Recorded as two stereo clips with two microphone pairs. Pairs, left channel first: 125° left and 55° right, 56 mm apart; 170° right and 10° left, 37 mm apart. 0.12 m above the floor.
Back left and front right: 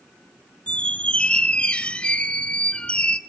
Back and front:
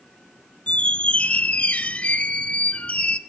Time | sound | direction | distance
0.7 | a squeak | 175° left | 0.6 m